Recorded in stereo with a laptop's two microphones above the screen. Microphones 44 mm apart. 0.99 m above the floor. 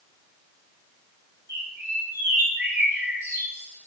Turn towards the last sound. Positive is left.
turn(degrees=-80)